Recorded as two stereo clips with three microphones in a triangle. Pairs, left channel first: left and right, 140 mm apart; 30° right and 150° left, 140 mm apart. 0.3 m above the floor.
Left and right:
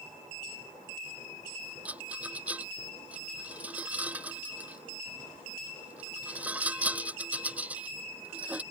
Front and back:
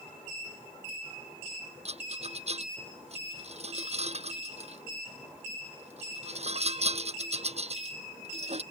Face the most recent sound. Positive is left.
turn(degrees=-170)